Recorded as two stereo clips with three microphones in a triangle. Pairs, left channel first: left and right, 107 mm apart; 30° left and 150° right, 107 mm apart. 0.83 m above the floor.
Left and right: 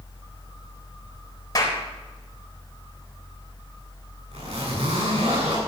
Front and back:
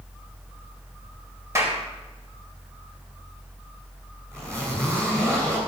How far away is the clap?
About 3.5 m.